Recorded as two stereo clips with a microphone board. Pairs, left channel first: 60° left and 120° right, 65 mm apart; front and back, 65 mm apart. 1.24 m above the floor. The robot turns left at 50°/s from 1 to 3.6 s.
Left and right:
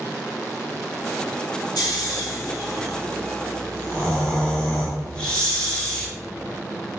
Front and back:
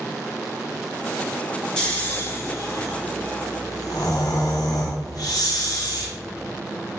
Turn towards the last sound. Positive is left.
turn(degrees=-15)